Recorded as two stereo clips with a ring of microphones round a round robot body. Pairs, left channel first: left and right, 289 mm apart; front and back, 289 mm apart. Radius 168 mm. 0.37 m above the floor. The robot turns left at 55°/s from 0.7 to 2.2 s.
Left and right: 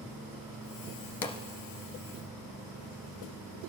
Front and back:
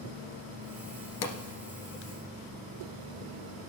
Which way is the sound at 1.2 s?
40° left.